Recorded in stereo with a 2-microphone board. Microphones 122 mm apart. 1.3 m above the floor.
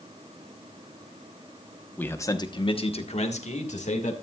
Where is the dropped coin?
I don't hear a dropped coin.